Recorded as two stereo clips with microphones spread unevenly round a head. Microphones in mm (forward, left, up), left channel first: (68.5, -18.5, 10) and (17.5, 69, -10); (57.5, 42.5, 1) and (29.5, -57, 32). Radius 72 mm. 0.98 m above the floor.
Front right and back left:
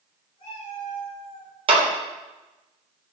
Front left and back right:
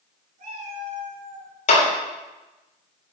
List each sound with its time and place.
0.4 s a cat meowing: 105° right, 4 m
1.7 s a clap: 90° left, 3 m